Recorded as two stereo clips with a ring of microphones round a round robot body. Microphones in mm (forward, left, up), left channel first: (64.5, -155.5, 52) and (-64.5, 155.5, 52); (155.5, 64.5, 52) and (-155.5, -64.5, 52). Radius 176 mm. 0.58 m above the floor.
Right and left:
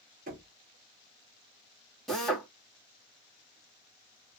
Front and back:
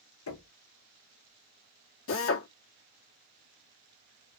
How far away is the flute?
I don't hear a flute.